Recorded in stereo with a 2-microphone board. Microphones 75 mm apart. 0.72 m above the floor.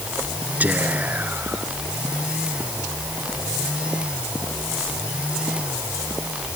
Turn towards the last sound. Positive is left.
turn(degrees=-20)  # may be behind; listen again after turning